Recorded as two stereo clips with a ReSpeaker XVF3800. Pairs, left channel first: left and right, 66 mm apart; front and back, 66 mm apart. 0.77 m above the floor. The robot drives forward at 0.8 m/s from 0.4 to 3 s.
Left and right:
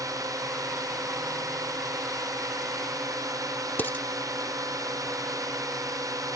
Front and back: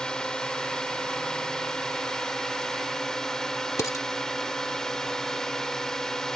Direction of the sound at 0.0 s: 75° right.